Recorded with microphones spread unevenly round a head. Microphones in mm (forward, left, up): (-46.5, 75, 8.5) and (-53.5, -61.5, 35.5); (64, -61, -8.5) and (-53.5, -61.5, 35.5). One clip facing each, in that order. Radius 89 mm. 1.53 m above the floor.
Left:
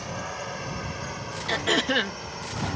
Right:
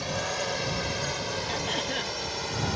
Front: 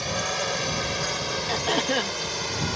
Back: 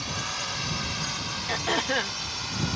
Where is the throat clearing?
80° left.